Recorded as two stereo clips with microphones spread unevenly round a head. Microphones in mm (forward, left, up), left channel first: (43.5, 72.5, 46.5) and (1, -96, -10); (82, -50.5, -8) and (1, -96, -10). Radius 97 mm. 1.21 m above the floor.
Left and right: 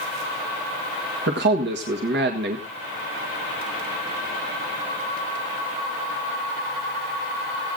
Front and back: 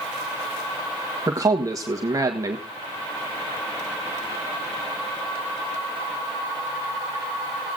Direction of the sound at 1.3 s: 100° right.